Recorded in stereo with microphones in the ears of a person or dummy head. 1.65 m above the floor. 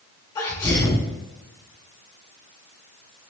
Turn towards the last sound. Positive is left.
turn(degrees=15)  # may be behind; listen again after turning